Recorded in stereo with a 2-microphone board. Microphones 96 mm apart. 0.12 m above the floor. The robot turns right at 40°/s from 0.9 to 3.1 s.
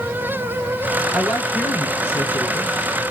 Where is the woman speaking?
Straight ahead, 2.5 m; by 2.7 s 60° left, 2.5 m.